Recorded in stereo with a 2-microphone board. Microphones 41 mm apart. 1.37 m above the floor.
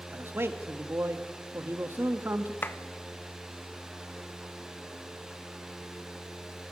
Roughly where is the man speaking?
Right.